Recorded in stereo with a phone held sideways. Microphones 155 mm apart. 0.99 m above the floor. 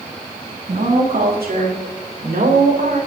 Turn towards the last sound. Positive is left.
turn(degrees=-80)